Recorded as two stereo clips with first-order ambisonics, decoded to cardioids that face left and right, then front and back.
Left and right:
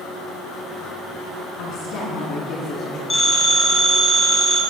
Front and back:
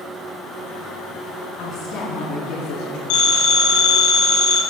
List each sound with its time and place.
1.6 s a woman speaking: 55° left, 4 m; by 3.0 s 30° left, 4 m
3.1 s a phone ringing: 15° left, 3.5 m